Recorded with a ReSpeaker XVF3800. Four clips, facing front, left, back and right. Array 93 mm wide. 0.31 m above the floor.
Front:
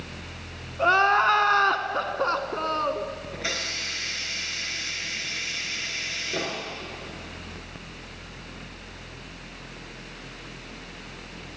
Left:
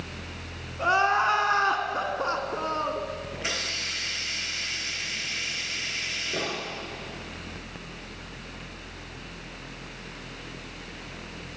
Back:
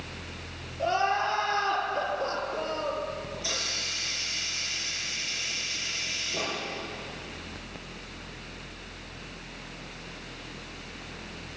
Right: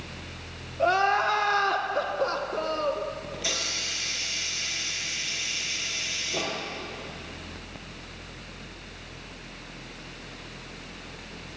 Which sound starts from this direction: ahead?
Crying, at 0.8 s.